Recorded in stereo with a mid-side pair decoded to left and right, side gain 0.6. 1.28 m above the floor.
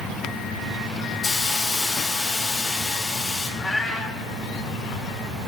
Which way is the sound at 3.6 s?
15° left.